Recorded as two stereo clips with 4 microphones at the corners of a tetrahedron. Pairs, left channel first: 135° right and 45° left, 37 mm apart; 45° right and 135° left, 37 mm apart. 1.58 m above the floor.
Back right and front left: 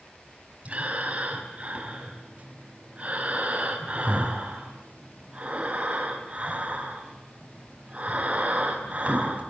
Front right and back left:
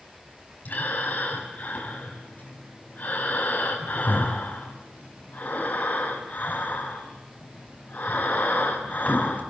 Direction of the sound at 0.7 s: 5° right.